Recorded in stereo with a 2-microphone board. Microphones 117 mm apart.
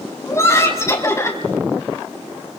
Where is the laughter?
25° left (ahead or behind), 4.5 m.